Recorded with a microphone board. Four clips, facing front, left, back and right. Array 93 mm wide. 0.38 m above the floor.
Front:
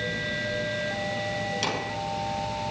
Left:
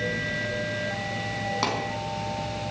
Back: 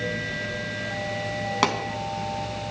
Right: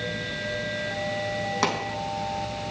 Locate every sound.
1.6 s a pop: 175° right, 2.5 m